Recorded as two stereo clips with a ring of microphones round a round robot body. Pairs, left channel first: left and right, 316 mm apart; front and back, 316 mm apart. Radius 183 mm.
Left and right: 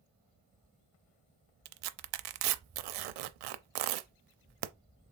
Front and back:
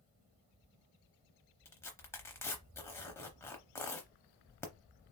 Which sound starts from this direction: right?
Tearing paper, at 1.6 s.